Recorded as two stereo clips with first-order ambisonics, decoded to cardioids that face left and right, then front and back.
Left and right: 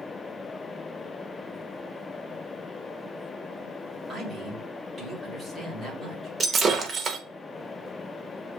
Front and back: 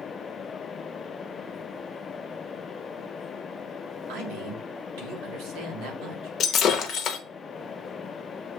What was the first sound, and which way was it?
A man speaking, straight behind.